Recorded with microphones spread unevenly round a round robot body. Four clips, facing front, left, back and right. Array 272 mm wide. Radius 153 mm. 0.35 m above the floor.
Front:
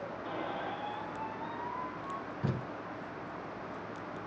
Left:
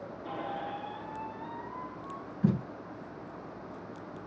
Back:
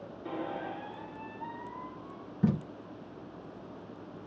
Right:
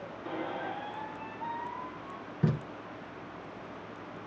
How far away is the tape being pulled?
About 1.7 m.